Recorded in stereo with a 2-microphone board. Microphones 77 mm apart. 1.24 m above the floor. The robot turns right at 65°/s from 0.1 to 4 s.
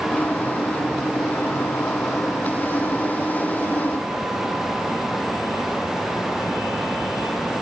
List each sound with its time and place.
Only background noise.